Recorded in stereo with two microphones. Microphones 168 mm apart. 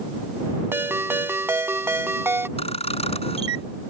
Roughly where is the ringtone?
Centre.